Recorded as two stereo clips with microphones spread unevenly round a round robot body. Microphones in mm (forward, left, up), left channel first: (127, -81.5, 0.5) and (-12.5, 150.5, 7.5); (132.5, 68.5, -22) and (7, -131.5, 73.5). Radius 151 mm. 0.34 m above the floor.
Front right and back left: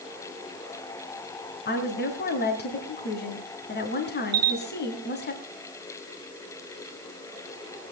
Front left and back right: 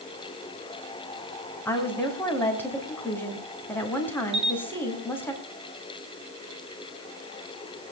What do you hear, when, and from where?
1.6 s a woman speaking: 10° right, 3 m
4.3 s a camera shutter: 160° left, 1.6 m